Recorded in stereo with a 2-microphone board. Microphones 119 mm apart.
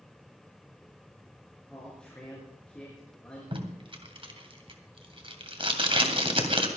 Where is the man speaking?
10° left (ahead or behind), 4.5 m.